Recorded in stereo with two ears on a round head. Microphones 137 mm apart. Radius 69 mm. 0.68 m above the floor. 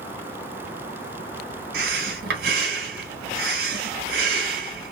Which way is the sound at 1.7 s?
75° right (ahead or behind).